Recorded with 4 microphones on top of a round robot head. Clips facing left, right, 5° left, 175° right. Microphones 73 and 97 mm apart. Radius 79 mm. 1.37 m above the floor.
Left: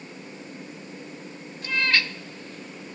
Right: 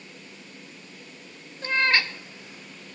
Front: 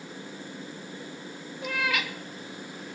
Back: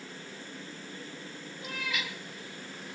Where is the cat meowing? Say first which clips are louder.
Right 2 dB, front 8 dB; 40° right, 1.3 m; by 3.0 s 120° left, 0.9 m.